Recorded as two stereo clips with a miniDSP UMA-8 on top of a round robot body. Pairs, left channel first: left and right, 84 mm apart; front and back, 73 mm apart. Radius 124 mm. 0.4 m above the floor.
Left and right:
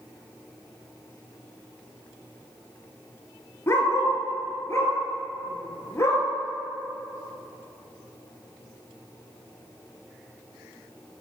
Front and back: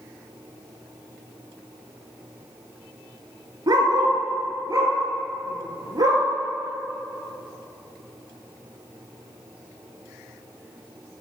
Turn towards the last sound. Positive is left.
turn(degrees=145)